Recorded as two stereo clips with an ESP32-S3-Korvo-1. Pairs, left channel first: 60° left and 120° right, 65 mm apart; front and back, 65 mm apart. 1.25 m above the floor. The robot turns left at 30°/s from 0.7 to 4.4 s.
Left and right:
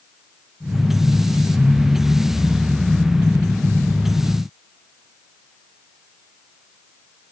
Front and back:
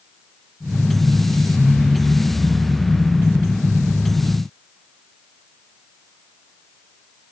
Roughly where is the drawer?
I don't hear a drawer.